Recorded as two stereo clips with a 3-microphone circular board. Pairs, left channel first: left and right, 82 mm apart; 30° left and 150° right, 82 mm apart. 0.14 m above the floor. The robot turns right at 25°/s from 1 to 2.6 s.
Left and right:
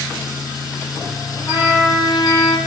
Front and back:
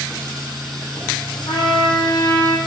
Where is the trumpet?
55° left, 5 m; by 2.6 s 85° left, 5 m.